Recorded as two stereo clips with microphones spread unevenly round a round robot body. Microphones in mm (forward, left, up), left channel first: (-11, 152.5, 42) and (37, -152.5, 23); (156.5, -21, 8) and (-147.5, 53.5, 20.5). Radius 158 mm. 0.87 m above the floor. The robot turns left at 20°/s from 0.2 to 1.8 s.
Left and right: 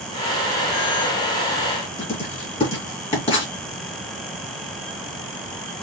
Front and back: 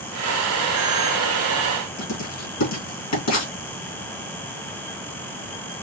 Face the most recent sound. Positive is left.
turn(degrees=25)